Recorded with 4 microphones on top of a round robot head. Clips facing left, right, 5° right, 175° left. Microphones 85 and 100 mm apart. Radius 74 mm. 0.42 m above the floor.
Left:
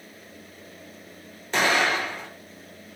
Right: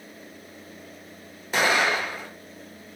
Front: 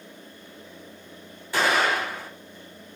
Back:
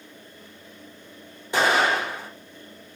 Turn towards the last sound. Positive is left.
turn(degrees=-160)